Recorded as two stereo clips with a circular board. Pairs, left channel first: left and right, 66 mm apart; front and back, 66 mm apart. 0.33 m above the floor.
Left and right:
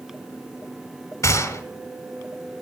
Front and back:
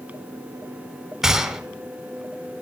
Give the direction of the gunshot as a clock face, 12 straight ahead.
9 o'clock.